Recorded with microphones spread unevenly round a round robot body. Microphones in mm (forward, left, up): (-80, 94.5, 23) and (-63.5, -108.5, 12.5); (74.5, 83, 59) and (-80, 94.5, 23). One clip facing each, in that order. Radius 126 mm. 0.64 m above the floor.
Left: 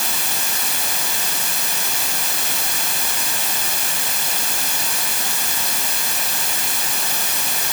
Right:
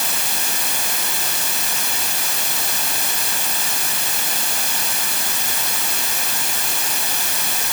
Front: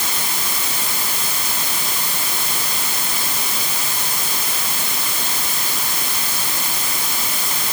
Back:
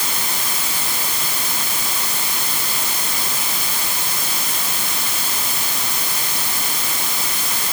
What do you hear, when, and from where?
Only background noise.